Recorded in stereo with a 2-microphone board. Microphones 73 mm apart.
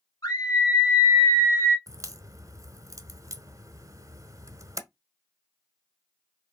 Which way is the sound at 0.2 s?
60° left (ahead or behind).